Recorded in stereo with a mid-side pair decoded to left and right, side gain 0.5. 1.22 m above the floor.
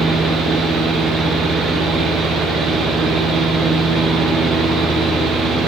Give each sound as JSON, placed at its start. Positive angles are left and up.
{"t": 0.0, "sound": "a fan", "azimuth_deg": -60, "distance_m": 0.9}